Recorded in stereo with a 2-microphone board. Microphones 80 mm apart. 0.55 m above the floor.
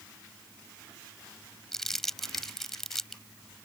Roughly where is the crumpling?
Centre.